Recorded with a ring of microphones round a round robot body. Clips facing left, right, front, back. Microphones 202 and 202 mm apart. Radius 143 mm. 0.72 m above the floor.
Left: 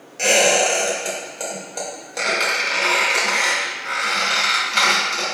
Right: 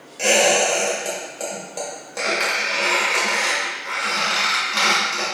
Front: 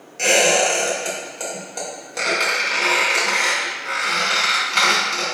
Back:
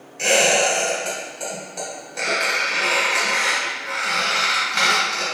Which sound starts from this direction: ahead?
A squeak, at 0.2 s.